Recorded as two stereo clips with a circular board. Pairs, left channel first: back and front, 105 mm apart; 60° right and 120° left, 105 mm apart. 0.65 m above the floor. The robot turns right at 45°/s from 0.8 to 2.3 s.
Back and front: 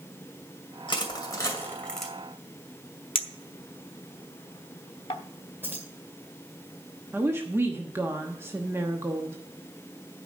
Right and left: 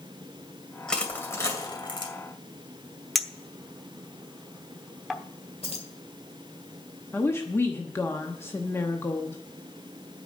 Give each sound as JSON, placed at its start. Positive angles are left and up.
{"t": 0.9, "sound": "crushing", "azimuth_deg": -145, "distance_m": 2.5}
{"t": 3.1, "sound": "a clink", "azimuth_deg": -150, "distance_m": 0.9}
{"t": 5.6, "sound": "keys jangling", "azimuth_deg": -70, "distance_m": 2.0}
{"t": 7.1, "sound": "a woman speaking", "azimuth_deg": -25, "distance_m": 1.0}